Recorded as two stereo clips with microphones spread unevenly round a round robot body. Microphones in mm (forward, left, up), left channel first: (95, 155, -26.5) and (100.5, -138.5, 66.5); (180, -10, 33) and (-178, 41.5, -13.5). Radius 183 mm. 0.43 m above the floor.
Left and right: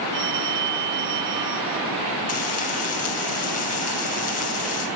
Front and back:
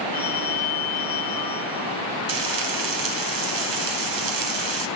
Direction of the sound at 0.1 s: 75° right.